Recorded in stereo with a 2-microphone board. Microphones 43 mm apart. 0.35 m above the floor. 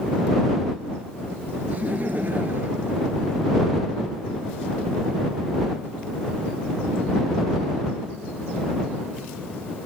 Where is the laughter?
40° right (ahead or behind); by 4.1 s 50° right (ahead or behind).